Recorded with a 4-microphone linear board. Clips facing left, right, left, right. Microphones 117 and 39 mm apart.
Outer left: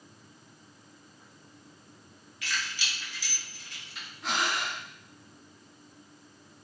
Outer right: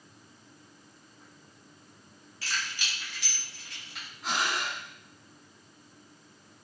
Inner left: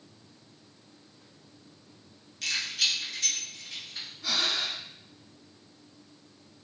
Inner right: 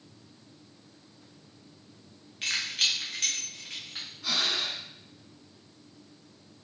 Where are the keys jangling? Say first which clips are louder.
Even, inner right 1 dB; 30° right (ahead or behind), 0.8 m; by 4.0 s 75° right (ahead or behind), 1.7 m.